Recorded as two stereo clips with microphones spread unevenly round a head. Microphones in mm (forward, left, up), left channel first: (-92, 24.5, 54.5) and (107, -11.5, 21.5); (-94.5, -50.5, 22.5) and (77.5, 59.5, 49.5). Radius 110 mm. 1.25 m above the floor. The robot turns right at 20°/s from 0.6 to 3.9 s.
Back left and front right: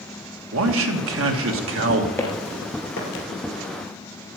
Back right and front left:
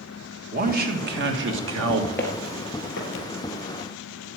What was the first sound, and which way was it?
A man speaking, 20° right.